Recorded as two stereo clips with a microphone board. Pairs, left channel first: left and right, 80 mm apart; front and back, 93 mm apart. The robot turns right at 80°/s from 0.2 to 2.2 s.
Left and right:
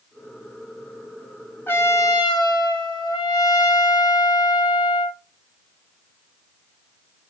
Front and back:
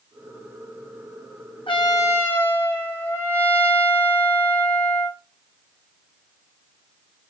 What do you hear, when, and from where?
1.7 s a trumpet: 25° left, 0.8 m; by 5.2 s 70° left, 0.8 m